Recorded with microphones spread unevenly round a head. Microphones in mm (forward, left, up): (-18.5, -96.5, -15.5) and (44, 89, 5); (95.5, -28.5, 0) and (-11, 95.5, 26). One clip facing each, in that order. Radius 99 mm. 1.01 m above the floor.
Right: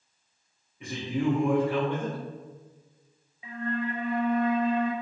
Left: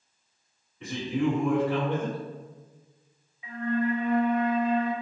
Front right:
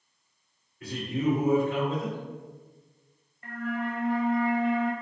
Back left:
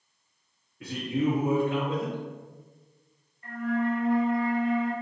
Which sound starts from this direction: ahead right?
A flute, at 3.4 s.